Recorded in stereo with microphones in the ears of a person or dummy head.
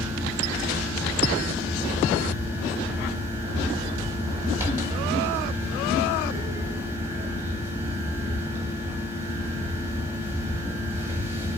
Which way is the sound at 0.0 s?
15° right (ahead or behind).